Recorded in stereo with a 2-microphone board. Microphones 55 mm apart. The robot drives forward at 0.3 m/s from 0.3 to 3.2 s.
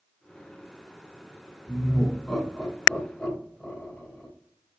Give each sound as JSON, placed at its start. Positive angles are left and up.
{"t": 1.7, "sound": "laughter", "side_deg": 15, "distance_m": 1.1}